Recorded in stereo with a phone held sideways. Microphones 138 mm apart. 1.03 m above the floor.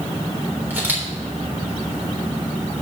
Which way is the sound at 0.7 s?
15° right (ahead or behind).